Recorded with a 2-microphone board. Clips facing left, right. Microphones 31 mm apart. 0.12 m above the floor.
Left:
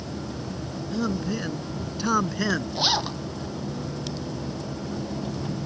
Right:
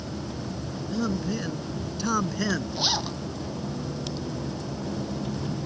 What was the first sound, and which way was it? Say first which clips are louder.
A man speaking: left 1 dB; 10° left (ahead or behind).